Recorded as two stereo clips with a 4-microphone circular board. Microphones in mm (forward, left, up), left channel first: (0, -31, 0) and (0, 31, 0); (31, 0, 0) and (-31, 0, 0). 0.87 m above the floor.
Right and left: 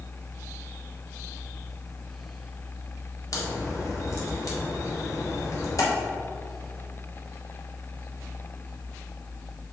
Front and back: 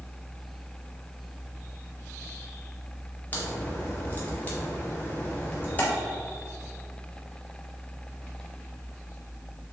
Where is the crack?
60° right, 1.6 m.